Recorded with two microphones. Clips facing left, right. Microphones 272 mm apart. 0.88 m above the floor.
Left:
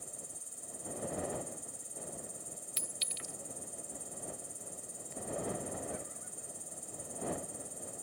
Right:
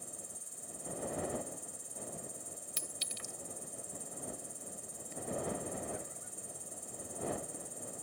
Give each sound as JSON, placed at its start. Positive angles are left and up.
{"t": 0.0, "sound": "an insect", "side_deg": -65}
{"t": 2.8, "sound": "a clink", "side_deg": -50}